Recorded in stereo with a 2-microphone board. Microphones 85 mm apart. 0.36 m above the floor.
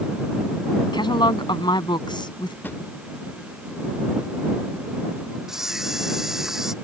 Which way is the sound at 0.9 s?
65° left (ahead or behind).